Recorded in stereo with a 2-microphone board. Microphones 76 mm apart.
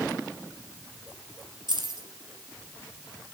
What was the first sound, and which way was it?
Keys jangling, 75° right (ahead or behind).